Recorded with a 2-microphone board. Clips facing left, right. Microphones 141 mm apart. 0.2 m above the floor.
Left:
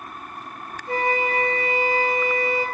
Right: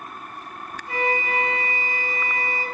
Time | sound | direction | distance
0.9 | a flute | 40° left (ahead or behind) | 2.5 m